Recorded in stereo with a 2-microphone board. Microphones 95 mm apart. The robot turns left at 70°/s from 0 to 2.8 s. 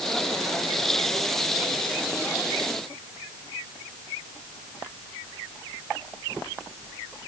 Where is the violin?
No violin in this recording.